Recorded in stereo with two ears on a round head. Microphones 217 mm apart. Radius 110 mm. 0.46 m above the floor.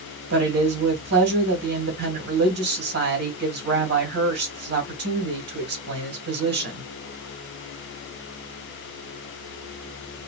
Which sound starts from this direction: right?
A woman speaking, at 0.3 s.